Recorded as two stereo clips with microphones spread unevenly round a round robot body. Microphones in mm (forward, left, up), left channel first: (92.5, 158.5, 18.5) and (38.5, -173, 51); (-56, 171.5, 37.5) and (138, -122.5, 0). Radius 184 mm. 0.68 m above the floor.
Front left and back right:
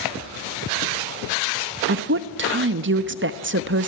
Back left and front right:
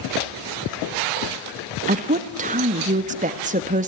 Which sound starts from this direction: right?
A woman speaking, at 1.9 s.